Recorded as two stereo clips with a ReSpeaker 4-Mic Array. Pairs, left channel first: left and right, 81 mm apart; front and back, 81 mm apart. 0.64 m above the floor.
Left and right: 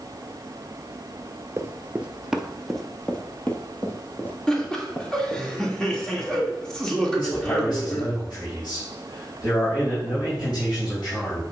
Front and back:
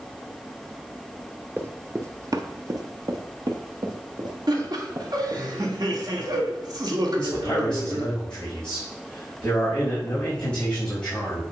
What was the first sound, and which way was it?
Running footsteps, 125° right.